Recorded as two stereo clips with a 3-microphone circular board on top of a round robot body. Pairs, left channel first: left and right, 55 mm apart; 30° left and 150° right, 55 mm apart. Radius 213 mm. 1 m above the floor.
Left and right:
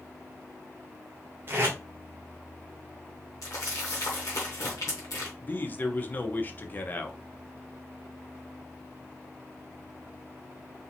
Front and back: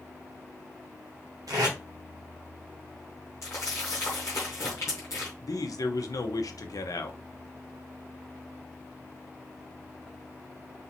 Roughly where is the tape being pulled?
Behind right.